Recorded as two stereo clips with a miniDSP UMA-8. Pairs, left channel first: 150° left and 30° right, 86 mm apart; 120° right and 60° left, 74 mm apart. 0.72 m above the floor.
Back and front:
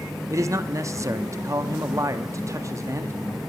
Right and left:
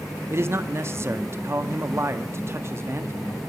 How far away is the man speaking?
About 0.8 m.